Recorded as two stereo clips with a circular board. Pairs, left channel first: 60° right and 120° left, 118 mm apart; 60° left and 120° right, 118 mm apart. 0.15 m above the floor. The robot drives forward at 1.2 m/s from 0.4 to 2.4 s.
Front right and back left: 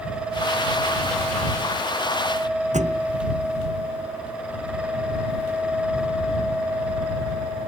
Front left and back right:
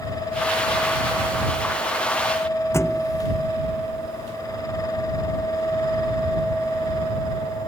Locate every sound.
2.7 s a thud: 130° left